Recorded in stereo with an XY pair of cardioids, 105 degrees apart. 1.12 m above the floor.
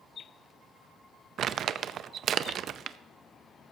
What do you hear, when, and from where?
1.4 s crumpling: 55° right, 0.6 m